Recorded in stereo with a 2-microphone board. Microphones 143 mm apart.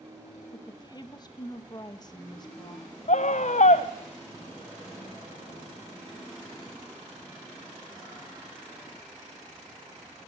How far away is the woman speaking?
About 1.1 m.